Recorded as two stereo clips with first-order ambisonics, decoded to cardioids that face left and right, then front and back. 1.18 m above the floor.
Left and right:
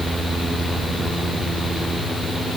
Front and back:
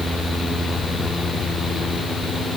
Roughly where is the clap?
No clap in this recording.